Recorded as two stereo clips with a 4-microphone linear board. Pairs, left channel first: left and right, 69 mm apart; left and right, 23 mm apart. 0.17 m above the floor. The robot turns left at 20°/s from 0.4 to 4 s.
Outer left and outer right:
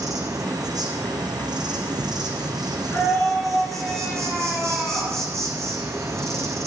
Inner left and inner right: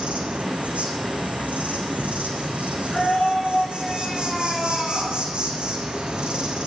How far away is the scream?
About 2 m.